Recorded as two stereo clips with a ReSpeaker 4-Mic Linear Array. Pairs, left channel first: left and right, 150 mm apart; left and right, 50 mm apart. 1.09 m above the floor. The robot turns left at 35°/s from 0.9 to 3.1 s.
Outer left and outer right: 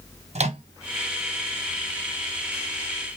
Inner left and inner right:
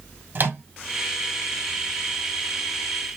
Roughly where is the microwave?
Right.